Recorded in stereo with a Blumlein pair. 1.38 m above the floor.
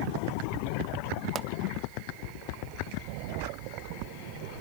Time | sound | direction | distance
1.4 | a pop | 25° right | 0.7 m